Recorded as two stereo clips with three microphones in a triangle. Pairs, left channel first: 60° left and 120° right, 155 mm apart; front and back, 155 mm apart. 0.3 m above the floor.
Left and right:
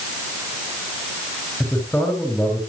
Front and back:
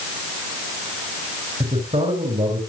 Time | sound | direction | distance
1.6 | a man speaking | 140° left | 4.5 m